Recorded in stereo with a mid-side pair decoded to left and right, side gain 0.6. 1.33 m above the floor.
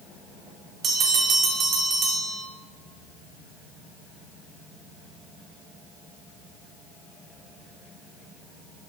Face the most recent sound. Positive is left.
turn(degrees=-45)